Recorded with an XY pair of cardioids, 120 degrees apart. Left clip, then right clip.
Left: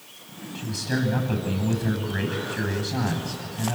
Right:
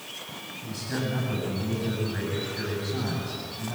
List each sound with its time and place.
0.6 s a man speaking: 45° left, 10 m